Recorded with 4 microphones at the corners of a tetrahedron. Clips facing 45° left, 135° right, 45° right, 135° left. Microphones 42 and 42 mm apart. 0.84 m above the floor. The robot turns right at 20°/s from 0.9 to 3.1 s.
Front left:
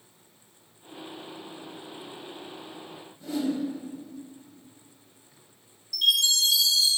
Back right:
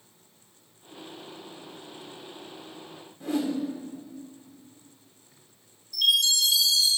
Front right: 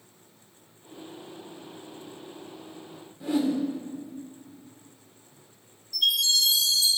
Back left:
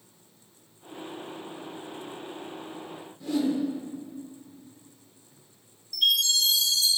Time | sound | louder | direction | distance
3.2 | a whoosh | back right 1 dB, front right 1 dB | 110° right | 1.8 m
5.9 | a chime | even, even | 160° left | 4 m